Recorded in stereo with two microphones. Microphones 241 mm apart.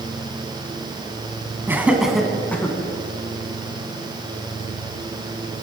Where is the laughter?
10° right (ahead or behind), 1.8 m; by 2.8 s 10° left (ahead or behind), 2.5 m.